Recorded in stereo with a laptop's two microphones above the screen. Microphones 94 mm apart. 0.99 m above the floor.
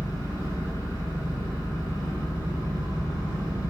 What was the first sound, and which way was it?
An engine running, 40° left (ahead or behind).